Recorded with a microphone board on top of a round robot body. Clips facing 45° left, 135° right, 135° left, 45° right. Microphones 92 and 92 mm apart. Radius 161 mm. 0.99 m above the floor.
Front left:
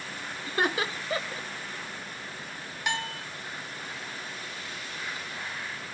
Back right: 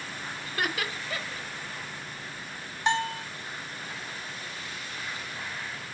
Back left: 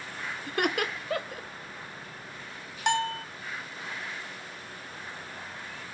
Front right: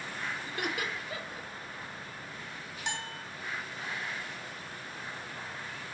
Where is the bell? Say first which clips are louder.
Back right 6 dB, back left 13 dB; 165° left, 1.0 m.